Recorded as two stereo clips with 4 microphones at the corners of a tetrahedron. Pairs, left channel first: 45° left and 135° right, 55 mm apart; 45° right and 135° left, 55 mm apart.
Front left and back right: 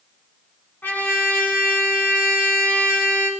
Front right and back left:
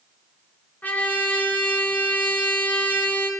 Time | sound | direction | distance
0.8 | a trumpet | 5° left | 2 m